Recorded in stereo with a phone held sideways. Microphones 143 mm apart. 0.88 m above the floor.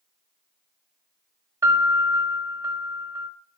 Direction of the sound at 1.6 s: 20° right (ahead or behind).